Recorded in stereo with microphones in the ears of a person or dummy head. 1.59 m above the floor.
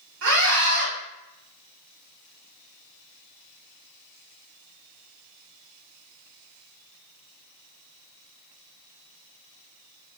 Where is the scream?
75° right (ahead or behind), 1.9 m.